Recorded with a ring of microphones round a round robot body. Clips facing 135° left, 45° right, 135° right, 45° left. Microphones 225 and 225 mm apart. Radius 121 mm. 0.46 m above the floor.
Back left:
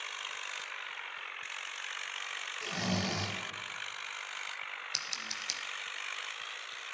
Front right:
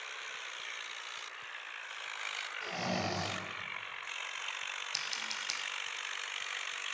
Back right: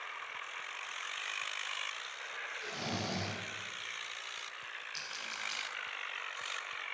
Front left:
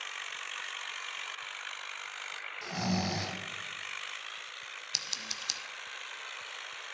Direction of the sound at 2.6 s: 70° left.